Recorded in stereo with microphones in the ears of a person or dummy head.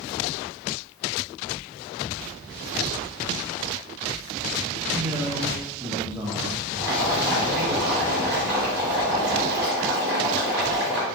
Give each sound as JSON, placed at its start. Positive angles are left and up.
{"t": 4.9, "sound": "a man speaking", "side_deg": -20, "distance_m": 0.7}
{"t": 6.8, "sound": "boiling", "side_deg": -5, "distance_m": 1.6}